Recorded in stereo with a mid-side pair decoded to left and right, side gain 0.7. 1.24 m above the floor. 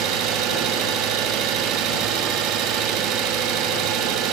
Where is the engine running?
60° right, 0.8 m.